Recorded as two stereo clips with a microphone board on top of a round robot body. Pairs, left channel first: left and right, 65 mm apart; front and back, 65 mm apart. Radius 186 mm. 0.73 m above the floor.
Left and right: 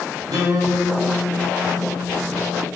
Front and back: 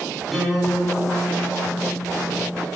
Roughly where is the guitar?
Right.